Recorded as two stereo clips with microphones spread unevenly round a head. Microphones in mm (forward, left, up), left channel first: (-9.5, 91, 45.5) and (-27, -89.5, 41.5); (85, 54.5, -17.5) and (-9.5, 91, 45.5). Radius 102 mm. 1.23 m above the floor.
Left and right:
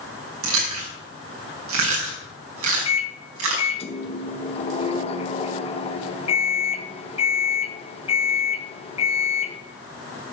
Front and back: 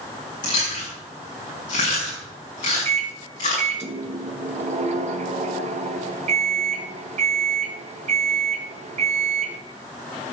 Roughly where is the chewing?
Right.